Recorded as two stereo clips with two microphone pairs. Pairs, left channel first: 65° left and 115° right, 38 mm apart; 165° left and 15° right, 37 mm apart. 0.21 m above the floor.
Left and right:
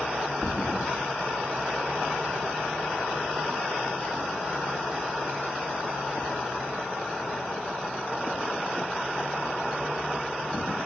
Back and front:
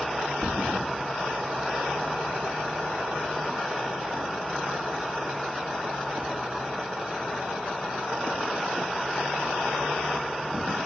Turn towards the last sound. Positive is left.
turn(degrees=50)